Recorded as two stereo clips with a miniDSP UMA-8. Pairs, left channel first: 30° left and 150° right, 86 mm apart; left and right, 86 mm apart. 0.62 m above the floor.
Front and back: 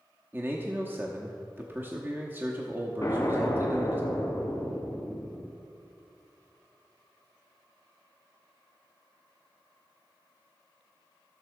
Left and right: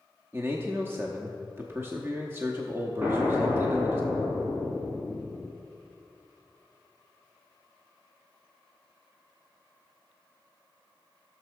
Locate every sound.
0.3 s a man speaking: 110° right, 0.9 m
3.0 s an explosion: 25° right, 2.5 m